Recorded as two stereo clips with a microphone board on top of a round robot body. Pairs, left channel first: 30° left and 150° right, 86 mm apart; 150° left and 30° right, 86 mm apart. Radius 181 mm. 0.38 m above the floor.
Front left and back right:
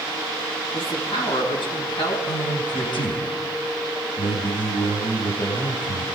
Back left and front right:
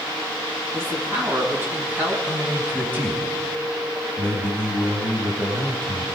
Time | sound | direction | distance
0.7 | a man speaking | 35° left | 6 m
2.2 | a man speaking | 35° left | 4.5 m